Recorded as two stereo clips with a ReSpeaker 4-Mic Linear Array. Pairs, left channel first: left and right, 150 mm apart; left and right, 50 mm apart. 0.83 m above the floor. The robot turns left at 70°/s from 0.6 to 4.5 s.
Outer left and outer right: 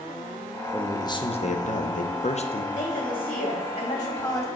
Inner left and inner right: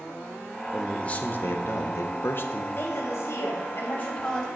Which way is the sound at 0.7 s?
170° left.